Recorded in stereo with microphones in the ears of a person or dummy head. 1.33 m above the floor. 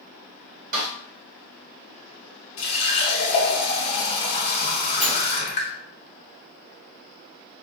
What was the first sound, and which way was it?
A snare drum, 45° right (ahead or behind).